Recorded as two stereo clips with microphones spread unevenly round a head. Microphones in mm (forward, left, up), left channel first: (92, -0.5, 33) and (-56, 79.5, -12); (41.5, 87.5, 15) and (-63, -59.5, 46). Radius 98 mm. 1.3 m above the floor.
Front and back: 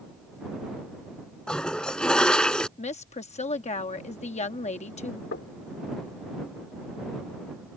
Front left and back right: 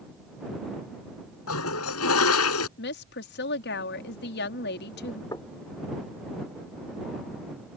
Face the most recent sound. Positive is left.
turn(degrees=-20)